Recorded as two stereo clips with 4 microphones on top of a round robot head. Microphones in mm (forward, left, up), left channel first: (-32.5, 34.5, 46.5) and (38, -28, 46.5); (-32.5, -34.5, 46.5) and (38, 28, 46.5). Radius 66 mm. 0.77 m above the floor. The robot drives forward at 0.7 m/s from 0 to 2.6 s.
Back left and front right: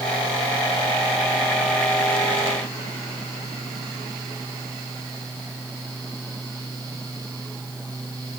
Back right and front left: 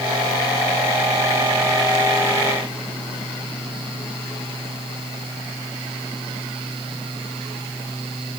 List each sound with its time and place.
Only background noise.